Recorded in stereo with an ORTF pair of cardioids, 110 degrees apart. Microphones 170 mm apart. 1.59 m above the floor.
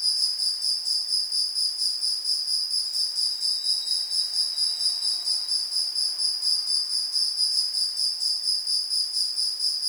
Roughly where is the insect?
Ahead.